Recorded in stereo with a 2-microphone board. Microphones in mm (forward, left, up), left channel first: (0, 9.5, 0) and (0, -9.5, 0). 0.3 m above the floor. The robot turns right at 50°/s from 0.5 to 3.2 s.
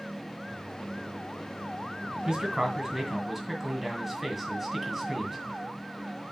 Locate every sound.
2.2 s a man speaking: 60° right, 2 m; by 5.4 s 10° right, 2 m